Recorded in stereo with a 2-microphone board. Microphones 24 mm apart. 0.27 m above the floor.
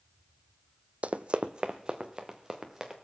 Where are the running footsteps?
65° right (ahead or behind), 0.5 m; by 2.9 s 20° right (ahead or behind), 2.5 m.